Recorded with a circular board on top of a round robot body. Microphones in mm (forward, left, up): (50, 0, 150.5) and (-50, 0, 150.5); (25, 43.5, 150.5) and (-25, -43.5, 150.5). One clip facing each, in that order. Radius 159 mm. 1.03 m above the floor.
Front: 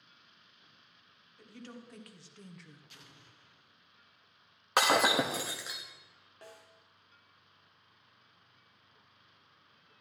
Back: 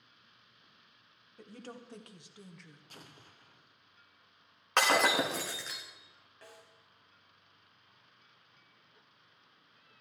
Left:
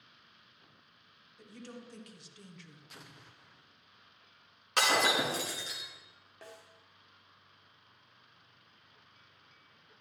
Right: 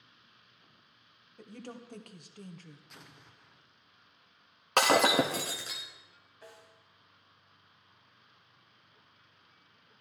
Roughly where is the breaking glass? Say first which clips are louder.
Front 1 dB, right 4 dB; right.